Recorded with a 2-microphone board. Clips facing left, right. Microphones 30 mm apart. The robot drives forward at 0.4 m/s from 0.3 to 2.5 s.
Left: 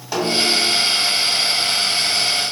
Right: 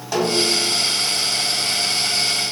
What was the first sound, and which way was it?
A snare drum, 5° left (ahead or behind).